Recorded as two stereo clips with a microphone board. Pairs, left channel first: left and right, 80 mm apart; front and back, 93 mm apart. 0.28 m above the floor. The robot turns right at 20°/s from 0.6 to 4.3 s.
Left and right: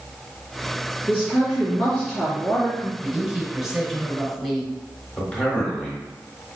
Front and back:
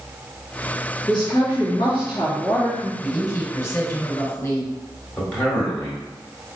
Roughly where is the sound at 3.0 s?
Ahead right.